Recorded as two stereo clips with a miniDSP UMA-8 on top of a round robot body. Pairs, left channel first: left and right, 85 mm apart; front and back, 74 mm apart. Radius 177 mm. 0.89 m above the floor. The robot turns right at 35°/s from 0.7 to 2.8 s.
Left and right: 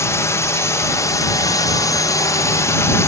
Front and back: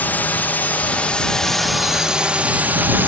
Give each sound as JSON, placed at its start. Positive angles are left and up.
{"t": 0.0, "sound": "a drone", "azimuth_deg": 55}